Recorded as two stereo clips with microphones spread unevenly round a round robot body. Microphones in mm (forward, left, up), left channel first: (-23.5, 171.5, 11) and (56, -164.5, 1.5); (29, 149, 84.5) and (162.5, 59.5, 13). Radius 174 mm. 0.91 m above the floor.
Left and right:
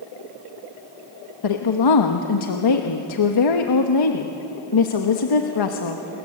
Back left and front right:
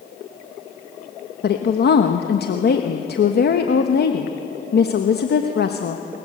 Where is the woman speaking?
115° left, 1.3 m.